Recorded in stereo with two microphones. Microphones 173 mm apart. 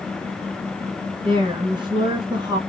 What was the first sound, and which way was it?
A woman speaking, 25° right (ahead or behind).